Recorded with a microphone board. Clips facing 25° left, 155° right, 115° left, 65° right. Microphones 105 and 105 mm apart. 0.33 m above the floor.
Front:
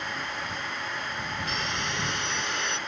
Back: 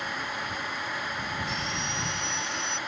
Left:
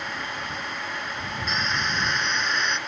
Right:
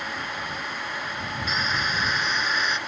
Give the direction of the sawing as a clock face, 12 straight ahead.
11 o'clock.